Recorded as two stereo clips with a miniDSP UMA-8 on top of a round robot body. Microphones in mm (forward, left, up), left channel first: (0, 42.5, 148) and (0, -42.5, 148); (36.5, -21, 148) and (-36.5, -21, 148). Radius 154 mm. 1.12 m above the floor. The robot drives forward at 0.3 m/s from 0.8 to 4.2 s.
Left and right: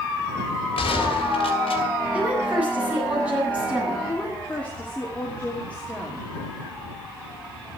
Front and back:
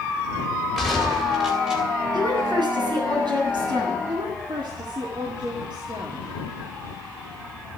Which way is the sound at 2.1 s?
160° right.